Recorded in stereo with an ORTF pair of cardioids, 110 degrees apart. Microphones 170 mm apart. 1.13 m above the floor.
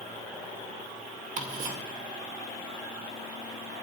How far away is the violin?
No violin in this recording.